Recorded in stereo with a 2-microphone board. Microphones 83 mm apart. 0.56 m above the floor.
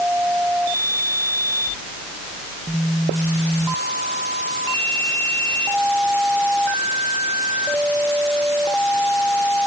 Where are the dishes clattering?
I don't hear dishes clattering.